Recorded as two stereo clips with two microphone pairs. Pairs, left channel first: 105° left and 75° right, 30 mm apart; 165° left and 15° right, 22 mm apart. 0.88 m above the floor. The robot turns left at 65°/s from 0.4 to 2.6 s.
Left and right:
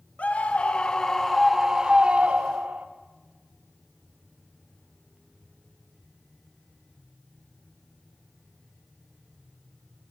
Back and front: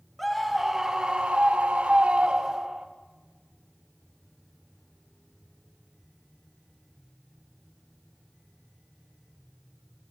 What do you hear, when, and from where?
0.2 s a scream: 75° left, 1.1 m; by 2.9 s 70° right, 1.1 m